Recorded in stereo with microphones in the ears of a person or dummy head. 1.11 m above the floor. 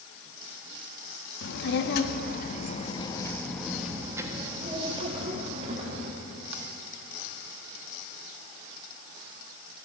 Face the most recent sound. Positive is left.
turn(degrees=-50)  # may be behind; listen again after turning